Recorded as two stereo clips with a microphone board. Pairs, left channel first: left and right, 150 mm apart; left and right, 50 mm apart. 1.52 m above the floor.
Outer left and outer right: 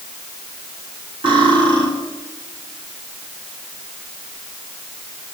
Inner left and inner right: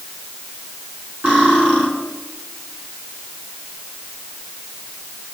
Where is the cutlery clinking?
40° right (ahead or behind), 6.5 m.